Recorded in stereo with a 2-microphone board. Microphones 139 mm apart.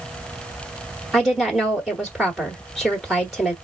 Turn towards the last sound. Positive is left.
turn(degrees=0)  # may be behind; listen again after turning